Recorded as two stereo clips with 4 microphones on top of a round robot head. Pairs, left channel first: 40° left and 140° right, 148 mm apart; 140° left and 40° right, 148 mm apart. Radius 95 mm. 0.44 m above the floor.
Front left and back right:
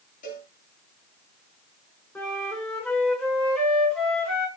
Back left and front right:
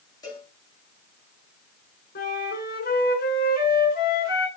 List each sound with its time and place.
0.2 s a cowbell: 75° left, 9.5 m
2.1 s a flute: 120° left, 6 m